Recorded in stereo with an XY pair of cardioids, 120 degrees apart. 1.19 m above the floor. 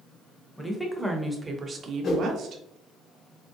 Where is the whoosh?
55° left, 1.5 m.